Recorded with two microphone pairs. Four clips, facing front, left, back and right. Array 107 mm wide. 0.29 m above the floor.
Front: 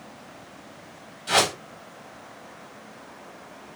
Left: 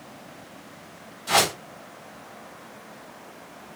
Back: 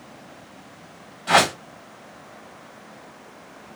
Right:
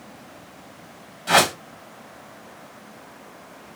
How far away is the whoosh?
About 1.0 m.